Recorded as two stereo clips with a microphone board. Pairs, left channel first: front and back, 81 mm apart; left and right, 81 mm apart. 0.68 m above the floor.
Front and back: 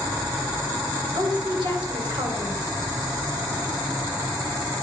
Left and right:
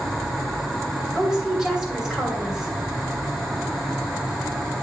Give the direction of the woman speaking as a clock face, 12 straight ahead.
6 o'clock.